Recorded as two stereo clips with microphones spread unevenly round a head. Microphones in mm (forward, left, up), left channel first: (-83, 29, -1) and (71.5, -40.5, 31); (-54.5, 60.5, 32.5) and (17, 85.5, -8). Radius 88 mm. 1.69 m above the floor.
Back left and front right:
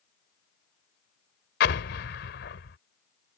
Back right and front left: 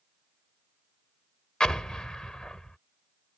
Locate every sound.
1.6 s an explosion: 160° left